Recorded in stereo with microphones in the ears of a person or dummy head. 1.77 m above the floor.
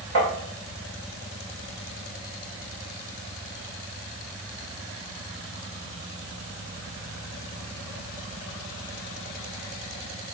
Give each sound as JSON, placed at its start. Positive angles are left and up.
{"t": 0.1, "sound": "tapping", "side_deg": -60, "distance_m": 2.5}